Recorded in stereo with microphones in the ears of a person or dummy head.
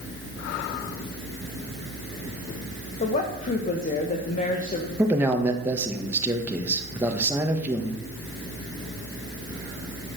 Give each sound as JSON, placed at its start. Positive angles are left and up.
{"t": 3.0, "sound": "a woman speaking", "side_deg": 40, "distance_m": 1.2}
{"t": 5.0, "sound": "a man speaking", "side_deg": -15, "distance_m": 1.2}